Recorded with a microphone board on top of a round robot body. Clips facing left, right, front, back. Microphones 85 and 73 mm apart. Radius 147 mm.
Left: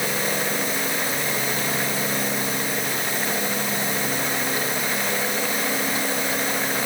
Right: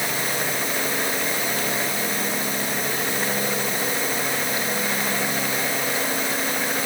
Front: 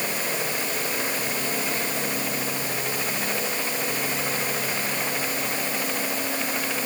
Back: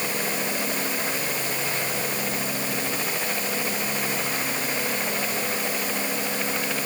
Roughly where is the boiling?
I don't hear boiling.